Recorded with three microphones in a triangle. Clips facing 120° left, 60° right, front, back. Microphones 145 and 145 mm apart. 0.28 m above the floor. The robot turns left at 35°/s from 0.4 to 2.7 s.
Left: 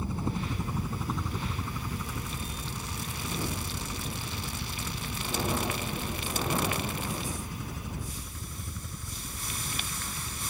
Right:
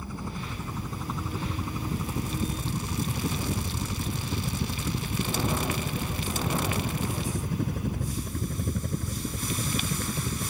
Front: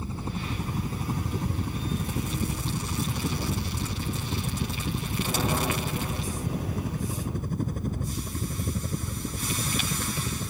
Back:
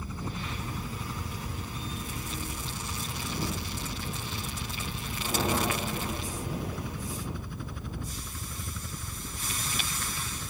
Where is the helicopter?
60° left; by 10.5 s 45° right.